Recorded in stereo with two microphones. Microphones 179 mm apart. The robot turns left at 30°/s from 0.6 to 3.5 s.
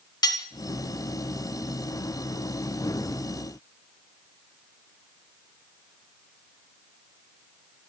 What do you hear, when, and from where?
0.2 s cutlery clinking: 25° left (ahead or behind), 1.6 m